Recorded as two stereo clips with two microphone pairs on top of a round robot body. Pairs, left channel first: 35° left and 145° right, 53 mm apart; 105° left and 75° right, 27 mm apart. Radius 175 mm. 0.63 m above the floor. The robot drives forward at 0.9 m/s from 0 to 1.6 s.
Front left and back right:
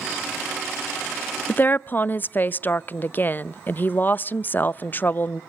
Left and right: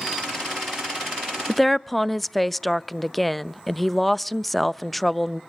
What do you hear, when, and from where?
1.5 s a woman speaking: 15° left, 0.6 m